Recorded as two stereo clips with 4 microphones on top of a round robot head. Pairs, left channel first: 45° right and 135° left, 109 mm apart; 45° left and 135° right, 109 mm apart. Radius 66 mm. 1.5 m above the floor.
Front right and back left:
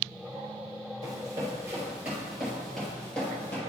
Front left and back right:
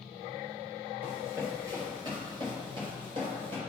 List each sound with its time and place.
1.0 s running footsteps: 165° left, 1.6 m; by 3.6 s 110° right, 2.0 m